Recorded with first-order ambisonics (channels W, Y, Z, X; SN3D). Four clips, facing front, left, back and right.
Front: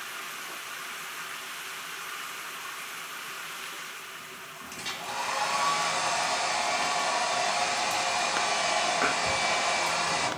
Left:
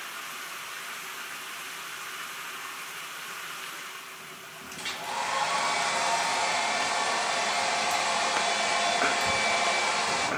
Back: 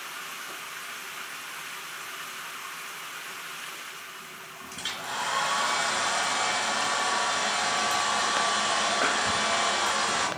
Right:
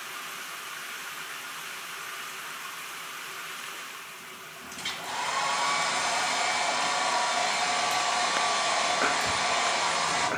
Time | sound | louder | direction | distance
4.8 | a hair dryer | even, back 2 dB | 175° right | 4 m